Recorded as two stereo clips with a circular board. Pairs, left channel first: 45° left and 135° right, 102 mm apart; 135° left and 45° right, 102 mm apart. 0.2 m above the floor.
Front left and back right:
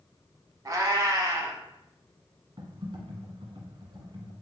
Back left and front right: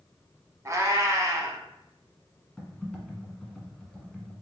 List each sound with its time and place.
0.7 s a cat meowing: 95° right, 0.6 m
2.6 s typing on a keyboard: 135° right, 1.2 m